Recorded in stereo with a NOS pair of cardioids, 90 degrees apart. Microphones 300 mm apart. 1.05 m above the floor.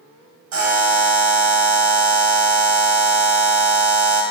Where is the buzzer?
70° right, 2.0 m.